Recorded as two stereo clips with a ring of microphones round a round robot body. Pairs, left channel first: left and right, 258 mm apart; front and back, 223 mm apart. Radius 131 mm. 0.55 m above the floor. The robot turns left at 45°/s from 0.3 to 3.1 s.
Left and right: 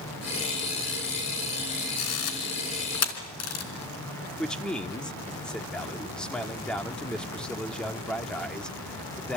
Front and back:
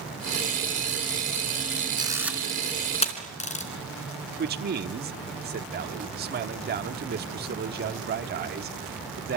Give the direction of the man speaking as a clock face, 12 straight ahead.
6 o'clock.